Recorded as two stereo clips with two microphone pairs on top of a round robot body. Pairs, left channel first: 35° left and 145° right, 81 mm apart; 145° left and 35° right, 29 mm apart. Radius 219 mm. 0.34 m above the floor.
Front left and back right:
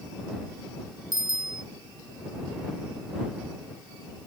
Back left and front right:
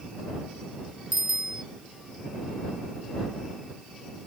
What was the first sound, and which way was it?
A bicycle bell, 115° right.